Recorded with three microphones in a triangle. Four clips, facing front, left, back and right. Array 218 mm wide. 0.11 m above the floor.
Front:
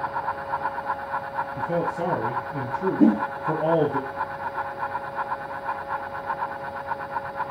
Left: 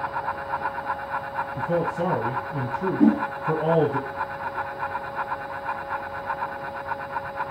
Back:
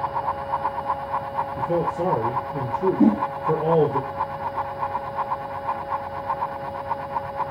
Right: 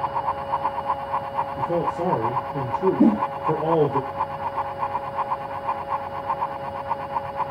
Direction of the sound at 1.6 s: 70° left.